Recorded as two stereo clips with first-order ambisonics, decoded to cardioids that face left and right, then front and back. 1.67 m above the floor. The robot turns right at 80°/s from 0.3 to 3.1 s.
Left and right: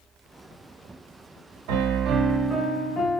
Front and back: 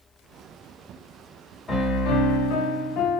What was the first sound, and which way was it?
A piano, 70° right.